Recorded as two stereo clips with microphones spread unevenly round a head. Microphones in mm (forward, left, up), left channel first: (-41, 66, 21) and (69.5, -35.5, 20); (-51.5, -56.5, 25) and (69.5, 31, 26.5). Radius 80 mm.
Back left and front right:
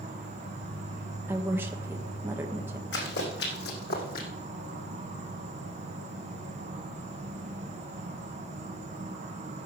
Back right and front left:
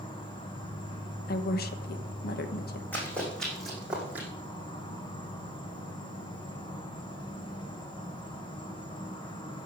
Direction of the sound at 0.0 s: 85° right.